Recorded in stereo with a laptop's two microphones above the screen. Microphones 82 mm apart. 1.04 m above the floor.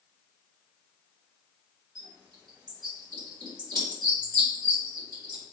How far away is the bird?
About 1.3 m.